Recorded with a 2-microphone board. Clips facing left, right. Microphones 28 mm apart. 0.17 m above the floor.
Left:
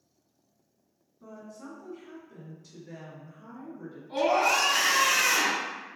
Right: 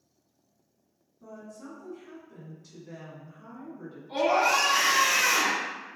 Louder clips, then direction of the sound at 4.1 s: Right 1 dB; 35° right (ahead or behind).